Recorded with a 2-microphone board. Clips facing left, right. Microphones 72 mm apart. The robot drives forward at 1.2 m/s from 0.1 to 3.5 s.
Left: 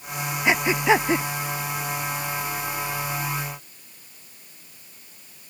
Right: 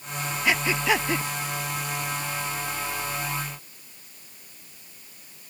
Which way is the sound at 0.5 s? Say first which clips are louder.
Left 4 dB; 20° left (ahead or behind).